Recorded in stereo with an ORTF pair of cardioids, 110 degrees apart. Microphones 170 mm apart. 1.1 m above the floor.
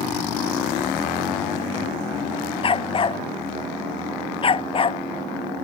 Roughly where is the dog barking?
Ahead left.